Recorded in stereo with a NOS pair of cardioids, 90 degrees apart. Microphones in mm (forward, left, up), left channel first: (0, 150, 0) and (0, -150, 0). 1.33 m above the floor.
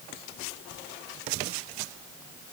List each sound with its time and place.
Only background noise.